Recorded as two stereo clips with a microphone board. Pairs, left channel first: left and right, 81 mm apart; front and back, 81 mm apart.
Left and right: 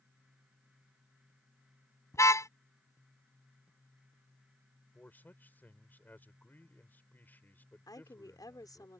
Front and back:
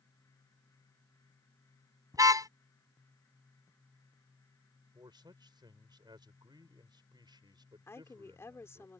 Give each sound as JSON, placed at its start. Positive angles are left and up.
{"t": 2.1, "sound": "a car horn", "azimuth_deg": 140}
{"t": 5.0, "sound": "a man speaking", "azimuth_deg": 155}
{"t": 7.9, "sound": "a woman speaking", "azimuth_deg": 55}